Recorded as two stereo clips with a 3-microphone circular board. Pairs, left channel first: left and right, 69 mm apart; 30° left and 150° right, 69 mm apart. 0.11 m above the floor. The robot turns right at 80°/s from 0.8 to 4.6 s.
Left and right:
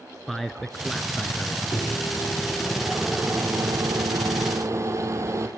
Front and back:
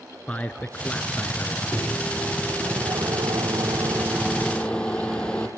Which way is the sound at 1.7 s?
85° left.